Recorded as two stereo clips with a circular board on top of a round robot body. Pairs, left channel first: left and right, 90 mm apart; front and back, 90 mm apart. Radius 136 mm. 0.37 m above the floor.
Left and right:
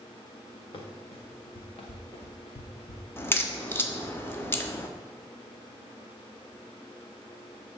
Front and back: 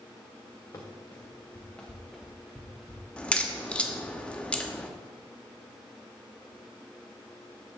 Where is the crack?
65° left, 1.5 m.